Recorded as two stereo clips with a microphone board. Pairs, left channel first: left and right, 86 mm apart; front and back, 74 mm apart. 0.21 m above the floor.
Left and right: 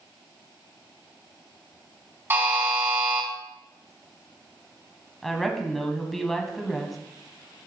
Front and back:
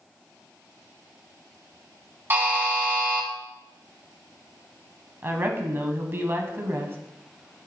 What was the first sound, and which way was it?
A buzzer, 140° right.